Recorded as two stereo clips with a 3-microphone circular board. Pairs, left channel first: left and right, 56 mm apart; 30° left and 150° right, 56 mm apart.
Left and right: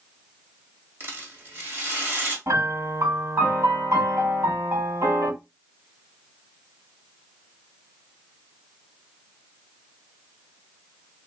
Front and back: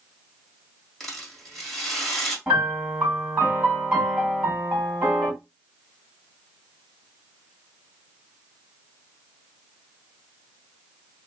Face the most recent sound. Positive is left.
turn(degrees=-85)